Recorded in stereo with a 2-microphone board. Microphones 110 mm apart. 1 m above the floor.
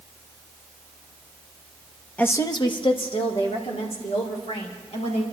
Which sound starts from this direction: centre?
A woman speaking, at 2.2 s.